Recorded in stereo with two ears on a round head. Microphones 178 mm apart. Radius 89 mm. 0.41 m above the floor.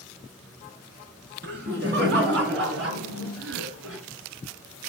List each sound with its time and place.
1.4 s laughter: 55° right (ahead or behind), 5 m; by 4.0 s 70° right (ahead or behind), 5.5 m